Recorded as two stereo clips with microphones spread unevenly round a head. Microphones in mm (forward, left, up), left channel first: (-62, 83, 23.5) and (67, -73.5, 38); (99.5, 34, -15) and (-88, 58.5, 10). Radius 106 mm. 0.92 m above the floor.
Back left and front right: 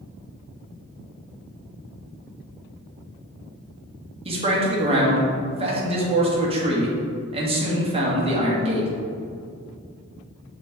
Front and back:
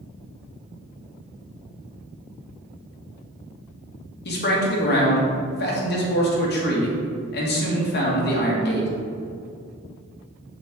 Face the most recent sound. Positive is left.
turn(degrees=10)